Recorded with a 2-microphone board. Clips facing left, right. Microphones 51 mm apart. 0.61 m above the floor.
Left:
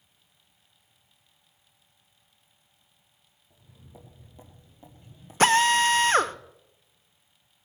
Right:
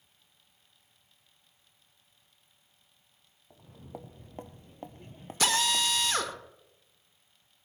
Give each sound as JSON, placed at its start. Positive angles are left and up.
{"t": 3.5, "sound": "footsteps", "side_deg": -50, "distance_m": 1.4}
{"t": 5.4, "sound": "a drill", "side_deg": 40, "distance_m": 0.6}